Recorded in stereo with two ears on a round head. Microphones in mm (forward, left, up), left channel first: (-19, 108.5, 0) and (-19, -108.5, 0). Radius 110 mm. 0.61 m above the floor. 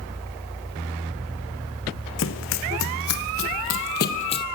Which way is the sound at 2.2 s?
65° left (ahead or behind).